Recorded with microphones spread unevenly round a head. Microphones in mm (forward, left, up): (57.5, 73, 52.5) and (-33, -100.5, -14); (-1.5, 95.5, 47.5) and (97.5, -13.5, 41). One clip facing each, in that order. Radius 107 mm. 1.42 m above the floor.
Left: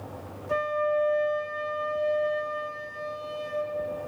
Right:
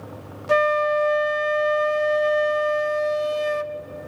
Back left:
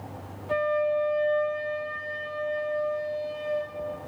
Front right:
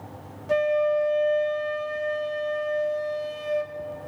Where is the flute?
110° right, 0.5 m.